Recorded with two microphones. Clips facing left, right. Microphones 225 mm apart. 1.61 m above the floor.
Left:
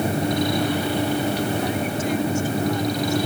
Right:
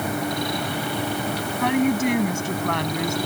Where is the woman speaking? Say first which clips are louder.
Right 4 dB; 70° right (ahead or behind); by 3.2 s 80° right.